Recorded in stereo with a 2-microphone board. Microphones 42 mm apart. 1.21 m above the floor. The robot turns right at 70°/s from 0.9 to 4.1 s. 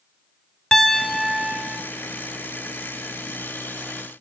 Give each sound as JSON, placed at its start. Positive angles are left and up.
{"t": 0.7, "sound": "a piano", "azimuth_deg": 165, "distance_m": 1.0}